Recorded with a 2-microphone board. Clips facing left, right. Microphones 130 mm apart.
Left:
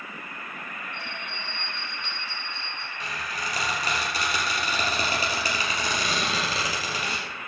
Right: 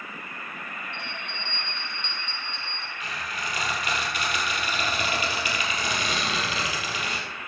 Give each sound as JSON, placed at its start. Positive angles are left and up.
{"t": 0.9, "sound": "a bell", "side_deg": 5, "distance_m": 5.0}
{"t": 3.0, "sound": "a squeak", "side_deg": 35, "distance_m": 4.0}